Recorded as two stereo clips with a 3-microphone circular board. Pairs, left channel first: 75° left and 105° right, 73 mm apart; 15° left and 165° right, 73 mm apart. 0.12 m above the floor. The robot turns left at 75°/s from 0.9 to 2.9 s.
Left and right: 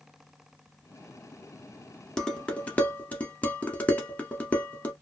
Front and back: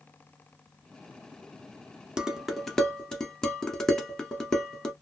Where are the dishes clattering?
135° left, 0.8 m; by 4.9 s 80° left, 0.8 m.